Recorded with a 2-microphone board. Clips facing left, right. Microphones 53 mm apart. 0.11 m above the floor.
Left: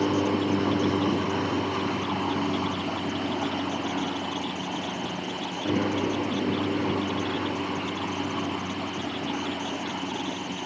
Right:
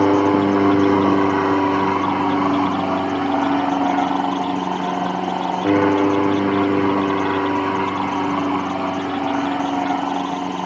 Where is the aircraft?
60° right (ahead or behind); by 10.7 s 80° right.